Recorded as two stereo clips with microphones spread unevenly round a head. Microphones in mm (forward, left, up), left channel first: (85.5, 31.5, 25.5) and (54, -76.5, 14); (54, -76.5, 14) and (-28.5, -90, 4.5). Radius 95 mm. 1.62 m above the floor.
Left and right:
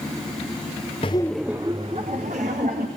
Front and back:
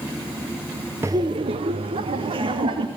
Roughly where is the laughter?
Behind left.